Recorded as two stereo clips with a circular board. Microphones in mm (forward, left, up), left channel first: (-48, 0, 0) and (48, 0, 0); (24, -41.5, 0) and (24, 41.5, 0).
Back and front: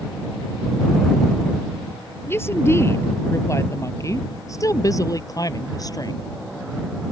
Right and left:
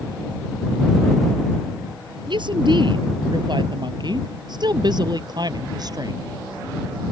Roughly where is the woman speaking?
Behind left.